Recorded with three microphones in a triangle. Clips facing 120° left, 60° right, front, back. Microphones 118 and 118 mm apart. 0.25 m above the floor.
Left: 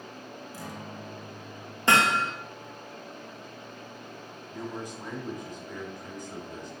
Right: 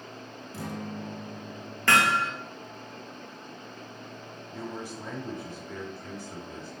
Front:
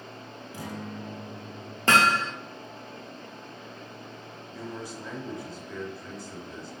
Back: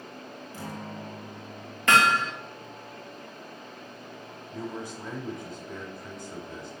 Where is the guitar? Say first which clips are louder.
Right 7 dB, front 1 dB; 75° right, 1.7 m.